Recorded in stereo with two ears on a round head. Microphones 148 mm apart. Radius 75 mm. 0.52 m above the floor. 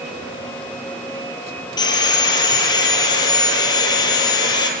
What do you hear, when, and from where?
1.8 s sawing: 25° left (ahead or behind), 5 m